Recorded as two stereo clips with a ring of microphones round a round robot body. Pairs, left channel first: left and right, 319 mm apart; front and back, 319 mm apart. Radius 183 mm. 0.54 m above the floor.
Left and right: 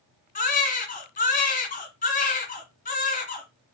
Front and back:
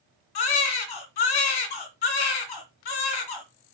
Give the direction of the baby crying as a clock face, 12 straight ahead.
11 o'clock.